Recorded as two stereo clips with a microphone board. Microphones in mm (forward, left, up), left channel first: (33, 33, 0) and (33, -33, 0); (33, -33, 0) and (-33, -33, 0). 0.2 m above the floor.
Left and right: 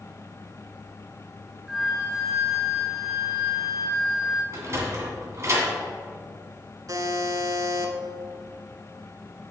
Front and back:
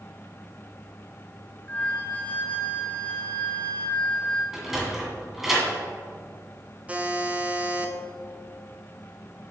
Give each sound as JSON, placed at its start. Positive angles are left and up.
{"t": 1.7, "sound": "a flute", "azimuth_deg": -10, "distance_m": 1.2}
{"t": 4.5, "sound": "a sliding door", "azimuth_deg": -100, "distance_m": 1.8}
{"t": 6.9, "sound": "a buzzer", "azimuth_deg": -115, "distance_m": 0.8}